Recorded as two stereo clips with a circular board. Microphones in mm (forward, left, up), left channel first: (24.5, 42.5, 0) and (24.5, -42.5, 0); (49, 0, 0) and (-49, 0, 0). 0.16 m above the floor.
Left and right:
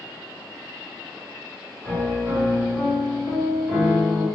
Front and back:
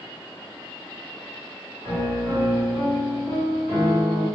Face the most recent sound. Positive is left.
turn(degrees=-145)